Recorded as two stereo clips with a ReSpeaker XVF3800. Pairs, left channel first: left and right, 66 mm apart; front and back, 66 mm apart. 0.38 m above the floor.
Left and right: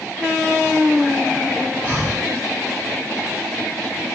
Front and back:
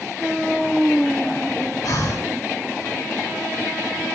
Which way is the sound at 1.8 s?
5° right.